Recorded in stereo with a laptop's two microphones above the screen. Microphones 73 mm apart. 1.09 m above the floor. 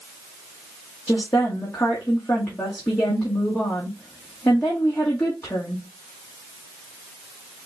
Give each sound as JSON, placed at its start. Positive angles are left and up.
{"t": 1.1, "sound": "a woman speaking", "side_deg": 40, "distance_m": 2.0}